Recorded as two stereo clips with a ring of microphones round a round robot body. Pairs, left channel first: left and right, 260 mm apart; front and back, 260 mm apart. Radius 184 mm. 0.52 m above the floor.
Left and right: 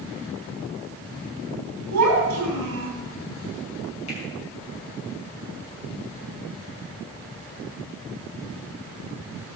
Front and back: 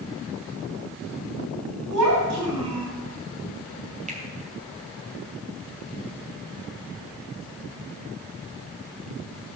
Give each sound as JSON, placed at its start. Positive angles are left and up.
{"t": 1.9, "sound": "a child speaking", "azimuth_deg": -140, "distance_m": 3.0}
{"t": 4.1, "sound": "a finger snap", "azimuth_deg": 120, "distance_m": 2.5}